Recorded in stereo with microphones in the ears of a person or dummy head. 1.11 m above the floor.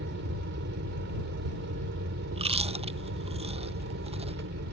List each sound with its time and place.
0.0 s an aircraft: 50° right (ahead or behind)
2.3 s chewing: 25° right (ahead or behind)